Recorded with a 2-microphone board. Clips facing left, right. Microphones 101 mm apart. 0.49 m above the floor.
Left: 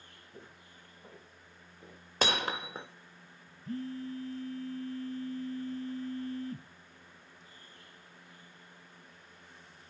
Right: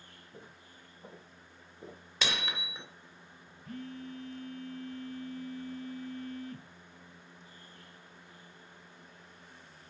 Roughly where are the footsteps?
Centre.